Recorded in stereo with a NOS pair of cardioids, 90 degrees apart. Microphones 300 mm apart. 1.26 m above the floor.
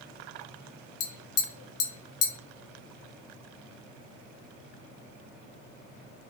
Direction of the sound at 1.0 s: 50° left.